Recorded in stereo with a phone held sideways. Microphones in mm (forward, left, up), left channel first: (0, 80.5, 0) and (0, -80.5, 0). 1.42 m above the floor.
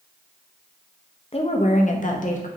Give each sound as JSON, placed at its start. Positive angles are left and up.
{"t": 1.3, "sound": "a woman speaking", "side_deg": 40, "distance_m": 0.6}